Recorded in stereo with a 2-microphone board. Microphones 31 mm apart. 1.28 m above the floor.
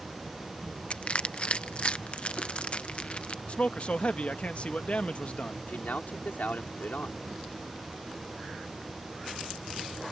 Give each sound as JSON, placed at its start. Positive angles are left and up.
{"t": 0.9, "sound": "crushing", "side_deg": 40}
{"t": 3.5, "sound": "a man speaking", "side_deg": 45}
{"t": 5.7, "sound": "a man speaking", "side_deg": 65}